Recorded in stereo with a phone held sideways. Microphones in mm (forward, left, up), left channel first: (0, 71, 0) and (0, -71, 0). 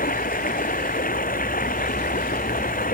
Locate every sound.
0.0 s running water: 85° left